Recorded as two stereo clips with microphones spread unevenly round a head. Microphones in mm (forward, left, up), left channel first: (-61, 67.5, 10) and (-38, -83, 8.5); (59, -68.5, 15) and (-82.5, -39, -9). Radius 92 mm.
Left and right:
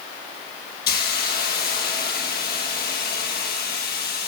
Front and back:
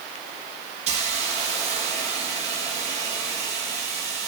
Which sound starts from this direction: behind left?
A hiss, at 0.9 s.